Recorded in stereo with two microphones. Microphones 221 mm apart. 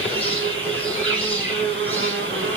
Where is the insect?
65° right (ahead or behind), 1.4 m.